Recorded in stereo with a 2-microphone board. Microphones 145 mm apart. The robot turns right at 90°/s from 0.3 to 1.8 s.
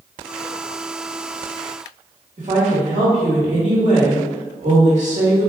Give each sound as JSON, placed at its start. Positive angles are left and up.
{"t": 2.4, "sound": "a woman speaking", "side_deg": -55, "distance_m": 1.9}